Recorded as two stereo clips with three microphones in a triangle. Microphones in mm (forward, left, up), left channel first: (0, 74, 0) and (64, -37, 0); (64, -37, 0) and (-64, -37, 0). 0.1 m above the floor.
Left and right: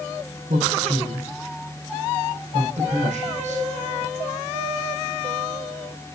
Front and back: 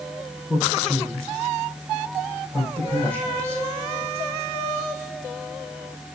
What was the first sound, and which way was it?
A man speaking, 75° right.